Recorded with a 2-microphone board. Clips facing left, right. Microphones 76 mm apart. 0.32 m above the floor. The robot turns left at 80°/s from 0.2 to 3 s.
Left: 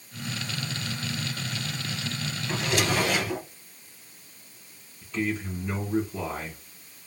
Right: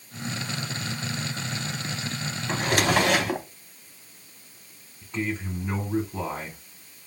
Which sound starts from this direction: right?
A man speaking, at 5.0 s.